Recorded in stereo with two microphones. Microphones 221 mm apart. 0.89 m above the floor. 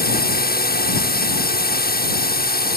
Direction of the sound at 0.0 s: 45° left (ahead or behind).